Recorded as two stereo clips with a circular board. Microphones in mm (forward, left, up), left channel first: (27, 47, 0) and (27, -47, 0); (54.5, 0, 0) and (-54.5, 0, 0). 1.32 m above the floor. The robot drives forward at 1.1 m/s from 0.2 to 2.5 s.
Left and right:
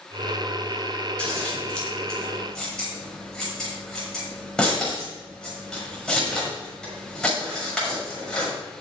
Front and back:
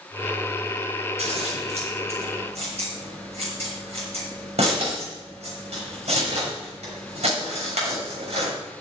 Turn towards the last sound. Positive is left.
turn(degrees=175)